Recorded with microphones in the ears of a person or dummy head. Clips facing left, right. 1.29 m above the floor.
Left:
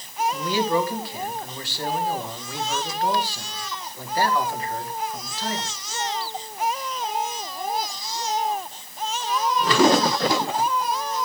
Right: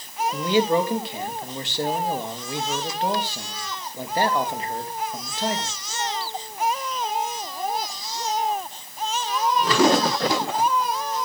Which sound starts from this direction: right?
A man speaking, at 0.3 s.